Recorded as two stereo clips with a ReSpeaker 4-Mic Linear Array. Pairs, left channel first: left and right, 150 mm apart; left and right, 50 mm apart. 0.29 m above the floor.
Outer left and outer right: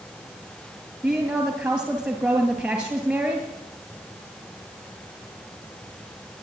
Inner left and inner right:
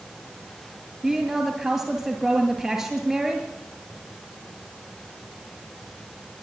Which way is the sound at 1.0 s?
5° right (ahead or behind).